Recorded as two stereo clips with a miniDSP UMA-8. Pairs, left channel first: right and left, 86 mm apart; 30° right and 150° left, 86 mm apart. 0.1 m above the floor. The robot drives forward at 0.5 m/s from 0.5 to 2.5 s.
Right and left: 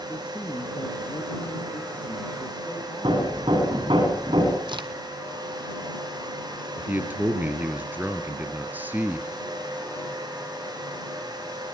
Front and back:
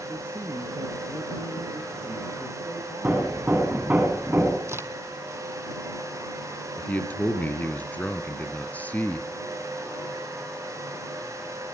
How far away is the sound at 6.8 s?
About 2.5 m.